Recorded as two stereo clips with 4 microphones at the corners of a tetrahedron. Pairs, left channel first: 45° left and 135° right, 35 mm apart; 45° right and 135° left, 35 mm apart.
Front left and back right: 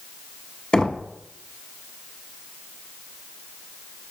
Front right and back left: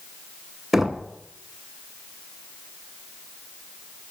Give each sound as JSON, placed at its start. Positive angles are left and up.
{"t": 0.7, "sound": "knocking", "azimuth_deg": 65, "distance_m": 0.7}